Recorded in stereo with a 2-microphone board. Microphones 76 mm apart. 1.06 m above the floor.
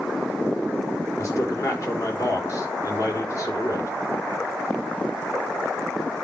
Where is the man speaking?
40° left (ahead or behind), 4 m.